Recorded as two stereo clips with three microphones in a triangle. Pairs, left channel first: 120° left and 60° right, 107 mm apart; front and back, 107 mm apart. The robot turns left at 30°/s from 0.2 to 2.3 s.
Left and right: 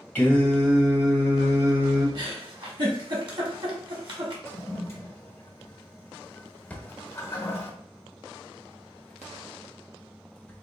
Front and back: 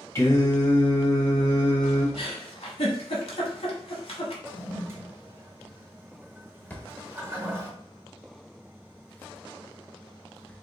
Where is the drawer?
60° left, 0.6 m.